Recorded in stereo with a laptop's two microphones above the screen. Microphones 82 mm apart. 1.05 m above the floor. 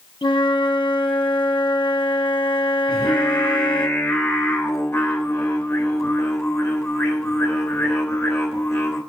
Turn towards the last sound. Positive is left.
turn(degrees=30)  # may be behind; listen again after turning